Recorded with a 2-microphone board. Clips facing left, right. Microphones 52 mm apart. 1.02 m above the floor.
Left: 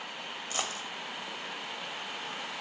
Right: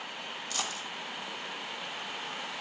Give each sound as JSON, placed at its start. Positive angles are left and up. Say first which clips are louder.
{"t": 0.5, "sound": "a dropped coin", "louder": "left 1 dB", "side_deg": 35, "distance_m": 1.5}